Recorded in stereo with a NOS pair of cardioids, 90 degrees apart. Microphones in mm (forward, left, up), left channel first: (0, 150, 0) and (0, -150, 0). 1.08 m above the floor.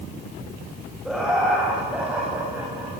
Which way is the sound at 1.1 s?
Straight ahead.